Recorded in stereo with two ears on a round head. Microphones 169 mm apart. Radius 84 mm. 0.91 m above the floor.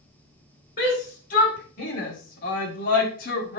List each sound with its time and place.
0.8 s a shout: 45° left (ahead or behind), 3.5 m; by 3.6 s 50° left (ahead or behind), 1.9 m